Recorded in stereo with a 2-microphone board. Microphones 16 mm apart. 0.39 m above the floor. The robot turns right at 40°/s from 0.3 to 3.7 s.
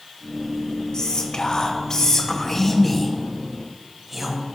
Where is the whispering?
90° left, 2 m; by 4.4 s 160° right, 2 m.